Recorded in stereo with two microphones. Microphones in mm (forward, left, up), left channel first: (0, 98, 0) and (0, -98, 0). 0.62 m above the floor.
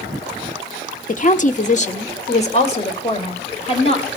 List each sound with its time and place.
1.1 s a woman speaking: 40° left (ahead or behind), 1.0 m; by 4.1 s 30° left (ahead or behind), 3 m